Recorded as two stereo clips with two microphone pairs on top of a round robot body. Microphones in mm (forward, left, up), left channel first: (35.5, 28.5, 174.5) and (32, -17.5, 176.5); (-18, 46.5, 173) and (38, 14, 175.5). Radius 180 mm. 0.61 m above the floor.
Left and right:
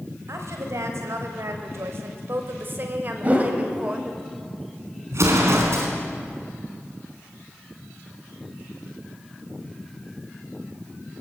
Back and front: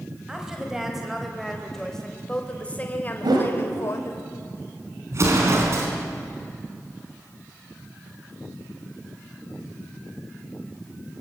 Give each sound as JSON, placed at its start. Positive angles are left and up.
{"t": 0.3, "sound": "a woman speaking", "azimuth_deg": -110, "distance_m": 4.0}
{"t": 3.2, "sound": "a whoosh", "azimuth_deg": -40, "distance_m": 3.5}
{"t": 5.1, "sound": "an explosion", "azimuth_deg": -75, "distance_m": 4.0}